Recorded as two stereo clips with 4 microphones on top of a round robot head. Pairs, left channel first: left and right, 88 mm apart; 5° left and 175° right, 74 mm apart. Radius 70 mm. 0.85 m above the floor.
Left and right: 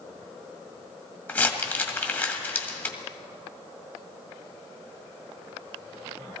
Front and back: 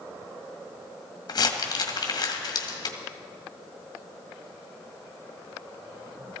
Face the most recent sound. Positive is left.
turn(degrees=25)